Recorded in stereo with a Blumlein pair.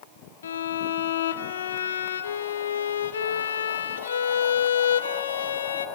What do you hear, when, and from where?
0.4 s a violin: 65° left, 0.6 m